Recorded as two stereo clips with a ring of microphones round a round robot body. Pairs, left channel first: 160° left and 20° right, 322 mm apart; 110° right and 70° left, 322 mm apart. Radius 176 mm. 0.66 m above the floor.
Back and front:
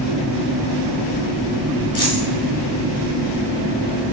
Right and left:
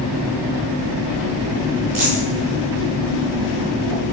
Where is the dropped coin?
80° left, 4.5 m.